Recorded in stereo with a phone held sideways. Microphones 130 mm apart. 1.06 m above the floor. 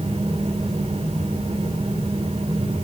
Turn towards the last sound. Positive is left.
turn(degrees=-55)  # may be behind; listen again after turning